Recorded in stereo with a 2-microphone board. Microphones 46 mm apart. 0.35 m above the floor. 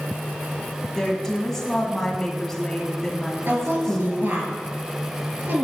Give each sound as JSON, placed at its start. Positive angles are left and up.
{"t": 0.9, "sound": "a woman speaking", "side_deg": 10, "distance_m": 2.0}
{"t": 3.5, "sound": "a woman speaking", "side_deg": -55, "distance_m": 2.5}